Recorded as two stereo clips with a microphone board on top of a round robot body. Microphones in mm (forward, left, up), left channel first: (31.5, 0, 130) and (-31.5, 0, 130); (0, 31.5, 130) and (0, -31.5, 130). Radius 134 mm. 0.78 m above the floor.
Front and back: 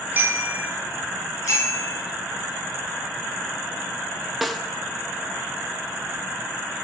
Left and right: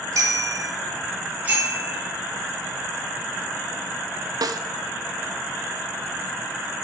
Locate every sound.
0.1 s a bicycle bell: 120° right, 3 m
1.4 s a bicycle bell: 25° right, 9 m
4.4 s a snare drum: 90° right, 1.0 m